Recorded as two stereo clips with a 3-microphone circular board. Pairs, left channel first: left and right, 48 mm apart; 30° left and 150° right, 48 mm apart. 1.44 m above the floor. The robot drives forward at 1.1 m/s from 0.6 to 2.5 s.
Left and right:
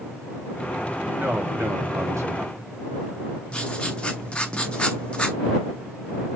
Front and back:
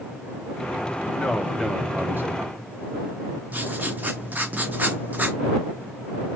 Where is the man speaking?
35° right, 1.2 m; by 2.7 s 125° right, 0.9 m.